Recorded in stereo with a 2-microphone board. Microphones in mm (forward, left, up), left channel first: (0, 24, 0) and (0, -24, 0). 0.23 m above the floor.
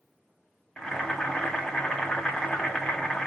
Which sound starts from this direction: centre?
Boiling, at 0.8 s.